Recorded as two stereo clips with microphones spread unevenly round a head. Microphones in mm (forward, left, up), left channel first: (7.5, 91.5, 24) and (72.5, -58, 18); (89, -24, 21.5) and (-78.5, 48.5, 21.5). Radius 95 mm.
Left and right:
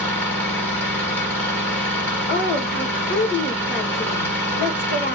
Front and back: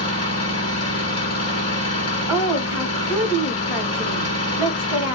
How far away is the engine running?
About 1.8 m.